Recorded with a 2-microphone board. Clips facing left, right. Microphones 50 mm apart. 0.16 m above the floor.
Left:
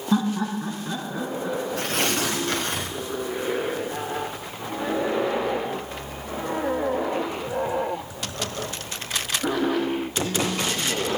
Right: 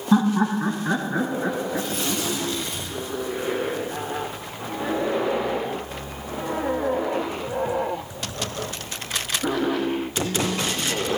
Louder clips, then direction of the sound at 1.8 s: Left 2 dB; 75° left (ahead or behind).